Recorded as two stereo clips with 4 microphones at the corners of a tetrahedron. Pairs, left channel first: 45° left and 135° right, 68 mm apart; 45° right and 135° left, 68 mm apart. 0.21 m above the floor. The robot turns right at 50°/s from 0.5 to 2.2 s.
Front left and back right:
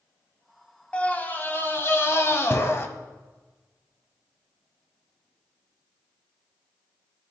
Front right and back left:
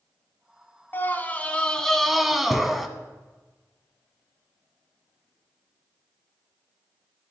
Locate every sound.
0.9 s a scream: 15° right, 1.1 m; by 2.9 s 45° left, 1.1 m